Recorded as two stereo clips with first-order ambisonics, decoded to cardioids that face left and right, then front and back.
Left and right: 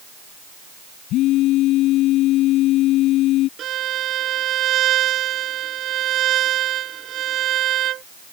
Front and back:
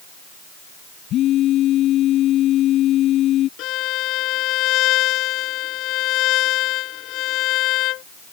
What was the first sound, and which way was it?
A phone buzzing, 50° left.